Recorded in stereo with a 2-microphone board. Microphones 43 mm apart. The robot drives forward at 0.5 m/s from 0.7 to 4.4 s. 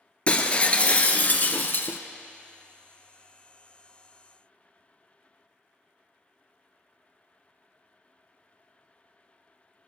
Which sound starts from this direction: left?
Breaking glass, at 0.3 s.